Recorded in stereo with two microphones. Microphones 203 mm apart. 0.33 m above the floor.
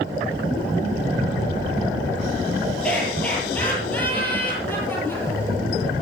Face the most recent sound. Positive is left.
turn(degrees=10)  # may be behind; listen again after turning